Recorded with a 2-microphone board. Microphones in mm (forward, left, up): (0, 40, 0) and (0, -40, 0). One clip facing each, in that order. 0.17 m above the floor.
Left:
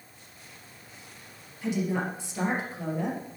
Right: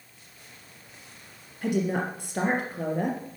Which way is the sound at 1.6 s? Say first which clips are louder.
Right 2 dB; 55° right (ahead or behind).